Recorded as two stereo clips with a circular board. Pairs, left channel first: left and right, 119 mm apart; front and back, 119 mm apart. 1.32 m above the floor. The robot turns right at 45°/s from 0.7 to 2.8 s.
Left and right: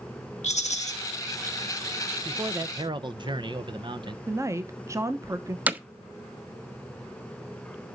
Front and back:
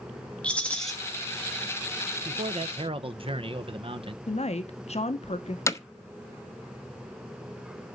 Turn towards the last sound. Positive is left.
turn(degrees=-30)